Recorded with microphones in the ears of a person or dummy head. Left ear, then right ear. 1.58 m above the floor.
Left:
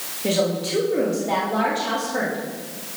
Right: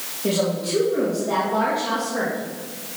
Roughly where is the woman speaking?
Centre.